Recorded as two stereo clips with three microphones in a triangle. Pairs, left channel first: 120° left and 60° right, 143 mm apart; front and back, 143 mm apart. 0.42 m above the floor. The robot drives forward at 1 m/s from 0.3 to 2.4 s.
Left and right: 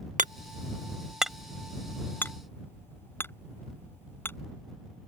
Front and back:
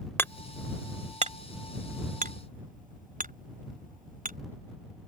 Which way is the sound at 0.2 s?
75° right.